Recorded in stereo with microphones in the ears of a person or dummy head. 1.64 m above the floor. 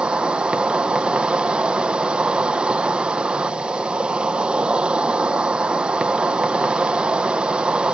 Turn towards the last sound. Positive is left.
turn(degrees=-10)  # may be behind; listen again after turning